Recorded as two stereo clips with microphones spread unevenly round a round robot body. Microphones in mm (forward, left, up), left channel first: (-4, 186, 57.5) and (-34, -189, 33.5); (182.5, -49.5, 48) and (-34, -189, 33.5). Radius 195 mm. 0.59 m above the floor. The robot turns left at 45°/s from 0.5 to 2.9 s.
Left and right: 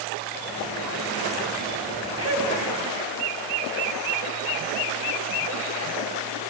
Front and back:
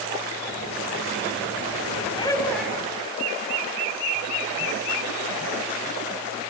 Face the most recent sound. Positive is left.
turn(degrees=-70)